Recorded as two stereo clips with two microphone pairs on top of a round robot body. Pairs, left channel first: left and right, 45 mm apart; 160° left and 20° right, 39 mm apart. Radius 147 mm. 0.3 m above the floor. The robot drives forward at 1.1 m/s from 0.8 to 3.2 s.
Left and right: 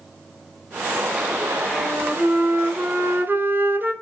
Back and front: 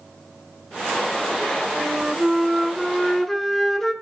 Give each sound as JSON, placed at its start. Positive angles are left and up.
{"t": 1.7, "sound": "a flute", "azimuth_deg": -85, "distance_m": 3.0}